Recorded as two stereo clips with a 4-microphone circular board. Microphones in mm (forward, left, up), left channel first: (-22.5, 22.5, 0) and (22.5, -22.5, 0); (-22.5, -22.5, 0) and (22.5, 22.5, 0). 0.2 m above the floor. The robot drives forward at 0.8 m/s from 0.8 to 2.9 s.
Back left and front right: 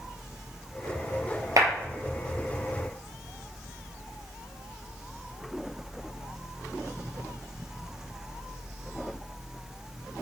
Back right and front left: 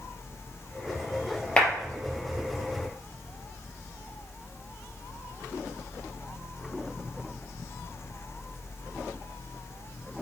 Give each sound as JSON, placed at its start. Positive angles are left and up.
{"t": 1.6, "sound": "a clap", "azimuth_deg": -65, "distance_m": 3.5}